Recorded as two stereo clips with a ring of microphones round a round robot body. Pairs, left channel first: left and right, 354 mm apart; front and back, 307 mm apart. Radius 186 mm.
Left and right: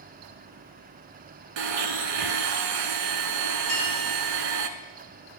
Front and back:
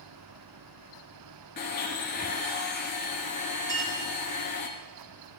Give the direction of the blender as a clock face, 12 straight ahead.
2 o'clock.